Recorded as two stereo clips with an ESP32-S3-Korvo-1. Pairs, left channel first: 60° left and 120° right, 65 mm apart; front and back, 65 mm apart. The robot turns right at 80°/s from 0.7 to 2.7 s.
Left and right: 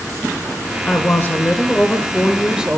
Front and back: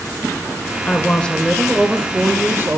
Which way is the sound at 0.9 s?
30° left.